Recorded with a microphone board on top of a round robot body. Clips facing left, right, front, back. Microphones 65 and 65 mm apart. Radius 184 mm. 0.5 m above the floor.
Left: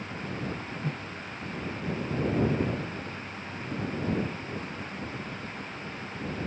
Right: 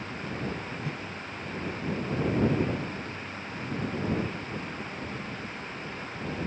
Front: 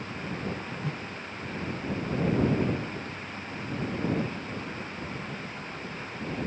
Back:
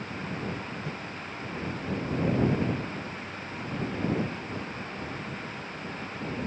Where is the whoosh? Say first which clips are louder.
Left 1 dB, front 2 dB; 40° left.